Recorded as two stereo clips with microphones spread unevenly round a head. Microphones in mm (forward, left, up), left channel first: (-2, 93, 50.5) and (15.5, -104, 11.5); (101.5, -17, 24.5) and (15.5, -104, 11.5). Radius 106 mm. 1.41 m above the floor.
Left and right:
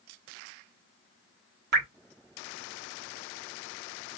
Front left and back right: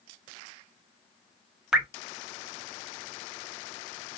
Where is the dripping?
45° right, 1.3 m.